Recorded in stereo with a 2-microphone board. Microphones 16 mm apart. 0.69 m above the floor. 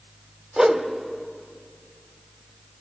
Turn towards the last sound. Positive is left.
turn(degrees=-50)  # may be behind; listen again after turning